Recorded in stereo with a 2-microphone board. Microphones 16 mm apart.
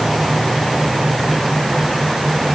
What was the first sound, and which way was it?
Only background noise.